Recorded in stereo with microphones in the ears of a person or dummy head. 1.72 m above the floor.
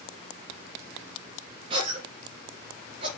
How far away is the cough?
About 3 m.